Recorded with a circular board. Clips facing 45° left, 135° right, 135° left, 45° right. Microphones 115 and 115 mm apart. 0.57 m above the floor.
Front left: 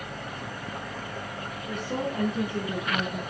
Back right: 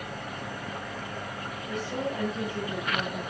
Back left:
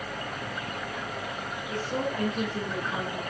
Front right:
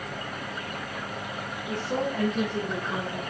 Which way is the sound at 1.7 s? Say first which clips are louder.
Front left 1 dB, front right 2 dB; 5° left.